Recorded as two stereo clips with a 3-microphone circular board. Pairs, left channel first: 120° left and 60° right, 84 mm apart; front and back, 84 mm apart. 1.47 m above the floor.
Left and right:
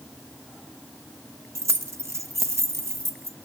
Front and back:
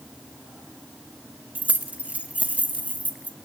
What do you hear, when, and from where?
1.6 s keys jangling: 105° right, 1.1 m